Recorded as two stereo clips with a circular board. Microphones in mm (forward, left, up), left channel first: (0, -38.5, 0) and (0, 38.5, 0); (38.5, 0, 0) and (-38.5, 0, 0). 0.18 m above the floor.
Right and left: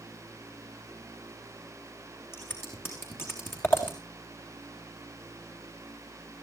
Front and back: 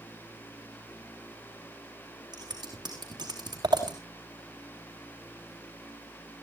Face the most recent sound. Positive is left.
turn(degrees=-150)